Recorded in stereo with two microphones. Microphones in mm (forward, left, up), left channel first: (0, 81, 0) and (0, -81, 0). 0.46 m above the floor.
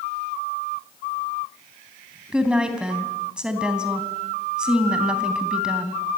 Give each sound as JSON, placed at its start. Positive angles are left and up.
{"t": 2.3, "sound": "a woman speaking", "side_deg": -5, "distance_m": 3.0}